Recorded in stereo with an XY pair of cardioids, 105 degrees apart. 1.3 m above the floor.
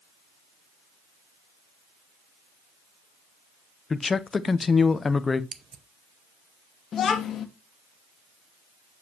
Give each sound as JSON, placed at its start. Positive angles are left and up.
{"t": 3.9, "sound": "a man speaking", "azimuth_deg": 30, "distance_m": 0.8}
{"t": 5.5, "sound": "scissors", "azimuth_deg": -50, "distance_m": 0.8}
{"t": 6.9, "sound": "a child speaking", "azimuth_deg": 55, "distance_m": 1.6}